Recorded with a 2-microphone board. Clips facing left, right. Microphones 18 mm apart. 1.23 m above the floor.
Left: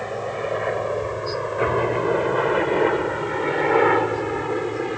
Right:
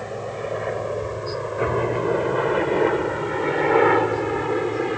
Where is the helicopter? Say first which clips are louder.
Left 3 dB; 20° left (ahead or behind); by 5.0 s 5° right (ahead or behind).